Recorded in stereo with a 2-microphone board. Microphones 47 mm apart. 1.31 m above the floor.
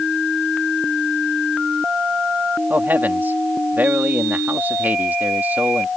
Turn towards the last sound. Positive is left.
turn(degrees=-45)  # may be behind; listen again after turning